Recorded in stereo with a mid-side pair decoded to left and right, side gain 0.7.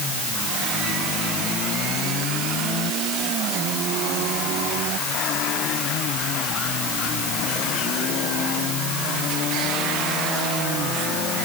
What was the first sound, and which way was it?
Only background noise.